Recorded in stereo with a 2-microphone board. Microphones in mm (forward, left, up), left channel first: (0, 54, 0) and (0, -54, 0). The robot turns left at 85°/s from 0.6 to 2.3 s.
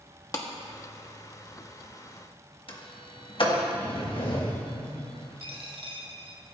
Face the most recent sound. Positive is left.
turn(degrees=-55)  # may be behind; listen again after turning